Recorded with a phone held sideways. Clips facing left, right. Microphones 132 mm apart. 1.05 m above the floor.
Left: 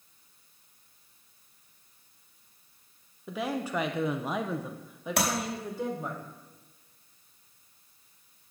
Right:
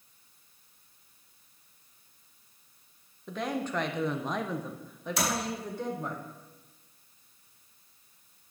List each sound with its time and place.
3.3 s a woman speaking: 5° left (ahead or behind), 0.8 m; by 6.2 s centre (ahead or behind), 1.4 m
5.2 s tapping: 70° left (ahead or behind), 3 m